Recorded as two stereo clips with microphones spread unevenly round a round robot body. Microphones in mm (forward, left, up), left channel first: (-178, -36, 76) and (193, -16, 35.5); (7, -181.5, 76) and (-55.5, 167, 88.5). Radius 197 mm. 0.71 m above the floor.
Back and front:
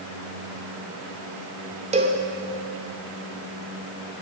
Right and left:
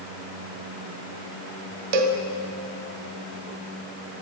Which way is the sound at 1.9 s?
75° left.